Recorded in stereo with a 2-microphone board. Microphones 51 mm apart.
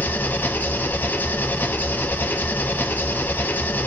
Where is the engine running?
40° left (ahead or behind), 0.9 m.